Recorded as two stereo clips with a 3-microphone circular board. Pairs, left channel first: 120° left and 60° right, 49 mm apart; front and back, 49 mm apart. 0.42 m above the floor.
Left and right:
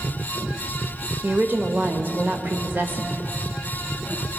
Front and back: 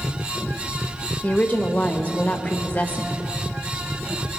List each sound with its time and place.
1.2 s a woman speaking: 40° right, 1.1 m